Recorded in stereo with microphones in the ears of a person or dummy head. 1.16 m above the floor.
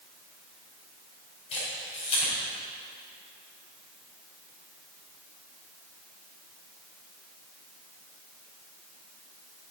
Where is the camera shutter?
30° left (ahead or behind), 3.5 m.